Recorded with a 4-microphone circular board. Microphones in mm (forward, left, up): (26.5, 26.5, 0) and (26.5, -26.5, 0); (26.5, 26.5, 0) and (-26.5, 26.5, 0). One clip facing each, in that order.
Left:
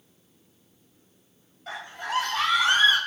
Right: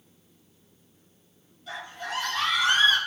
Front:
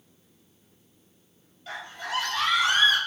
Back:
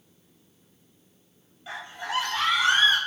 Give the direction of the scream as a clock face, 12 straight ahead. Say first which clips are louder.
Left 3 dB, back 1 dB; 8 o'clock.